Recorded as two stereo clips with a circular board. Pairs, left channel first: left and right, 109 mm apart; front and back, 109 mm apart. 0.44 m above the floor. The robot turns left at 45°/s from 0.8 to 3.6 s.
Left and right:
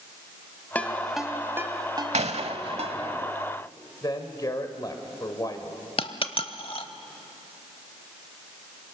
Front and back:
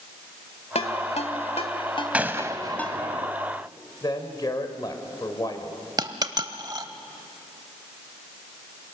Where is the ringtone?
15° left, 1.7 m; by 3.0 s 85° right, 1.7 m.